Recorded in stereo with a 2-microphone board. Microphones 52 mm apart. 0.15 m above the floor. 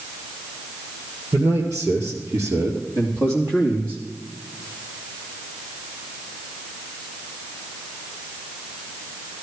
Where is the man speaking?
70° right (ahead or behind), 3.5 m; by 4.0 s 40° right (ahead or behind), 4 m.